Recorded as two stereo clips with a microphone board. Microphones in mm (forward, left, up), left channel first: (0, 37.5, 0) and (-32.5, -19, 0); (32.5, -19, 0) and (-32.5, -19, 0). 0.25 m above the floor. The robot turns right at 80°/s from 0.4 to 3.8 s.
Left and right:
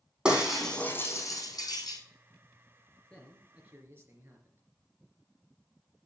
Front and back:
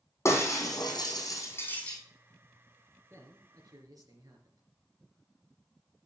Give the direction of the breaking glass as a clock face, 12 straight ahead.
2 o'clock.